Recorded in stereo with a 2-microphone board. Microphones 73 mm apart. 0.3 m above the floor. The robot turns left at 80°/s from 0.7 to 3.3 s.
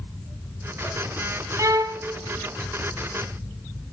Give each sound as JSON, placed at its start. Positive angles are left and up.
{"t": 1.6, "sound": "a violin", "azimuth_deg": -50, "distance_m": 1.0}